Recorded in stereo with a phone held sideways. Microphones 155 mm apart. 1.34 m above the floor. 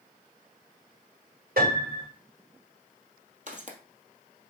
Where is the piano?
75° right (ahead or behind), 6 m.